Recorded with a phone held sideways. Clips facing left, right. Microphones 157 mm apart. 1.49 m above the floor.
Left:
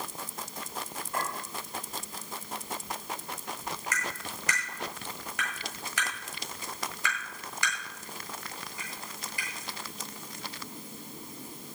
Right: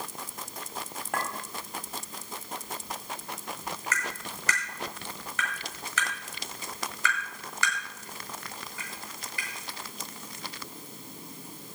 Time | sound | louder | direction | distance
1.1 | a clink | right 1 dB | 80° right | 3.5 m
3.9 | tapping | right 1 dB | 15° left (ahead or behind) | 9 m